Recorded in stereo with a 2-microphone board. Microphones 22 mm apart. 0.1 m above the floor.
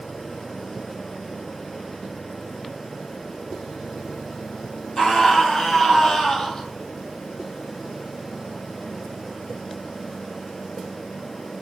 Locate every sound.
5.0 s a scream: 30° left (ahead or behind), 3.5 m